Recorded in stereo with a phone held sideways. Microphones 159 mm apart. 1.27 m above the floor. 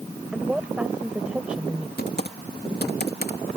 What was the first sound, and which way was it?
A woman speaking, 5° right (ahead or behind).